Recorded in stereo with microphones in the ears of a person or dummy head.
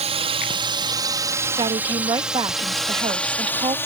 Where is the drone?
30° right (ahead or behind); by 3.9 s 15° left (ahead or behind).